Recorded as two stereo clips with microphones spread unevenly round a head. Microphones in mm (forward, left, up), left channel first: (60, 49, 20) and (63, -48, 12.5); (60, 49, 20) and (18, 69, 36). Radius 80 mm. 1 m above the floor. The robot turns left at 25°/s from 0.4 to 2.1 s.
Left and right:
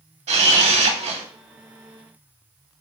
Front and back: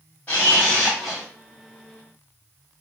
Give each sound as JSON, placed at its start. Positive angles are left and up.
{"t": 0.3, "sound": "a camera shutter", "azimuth_deg": -100, "distance_m": 1.1}